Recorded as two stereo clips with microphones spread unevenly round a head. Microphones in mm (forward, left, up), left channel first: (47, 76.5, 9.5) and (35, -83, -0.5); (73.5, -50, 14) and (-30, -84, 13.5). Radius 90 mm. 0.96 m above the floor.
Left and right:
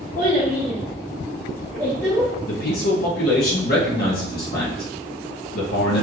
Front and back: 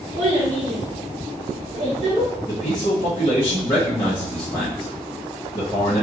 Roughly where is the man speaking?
Left.